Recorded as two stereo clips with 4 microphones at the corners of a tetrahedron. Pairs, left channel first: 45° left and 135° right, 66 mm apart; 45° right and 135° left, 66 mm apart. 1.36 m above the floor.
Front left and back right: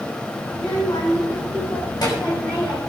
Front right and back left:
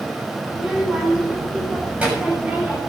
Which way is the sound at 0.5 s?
55° left.